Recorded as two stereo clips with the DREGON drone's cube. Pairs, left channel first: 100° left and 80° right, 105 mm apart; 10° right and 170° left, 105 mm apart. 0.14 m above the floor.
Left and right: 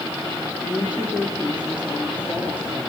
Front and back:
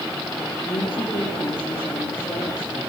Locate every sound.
0.6 s a woman speaking: 5° right, 3 m